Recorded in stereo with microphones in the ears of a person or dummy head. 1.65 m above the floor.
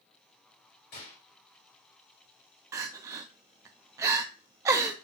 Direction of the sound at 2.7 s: 15° right (ahead or behind).